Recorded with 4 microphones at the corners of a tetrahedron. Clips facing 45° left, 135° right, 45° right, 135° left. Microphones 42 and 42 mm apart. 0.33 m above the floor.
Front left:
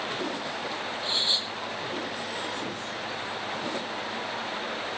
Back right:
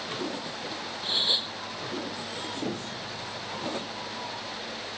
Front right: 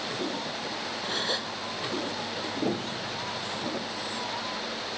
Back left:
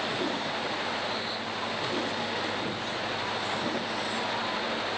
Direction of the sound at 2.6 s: 65° right.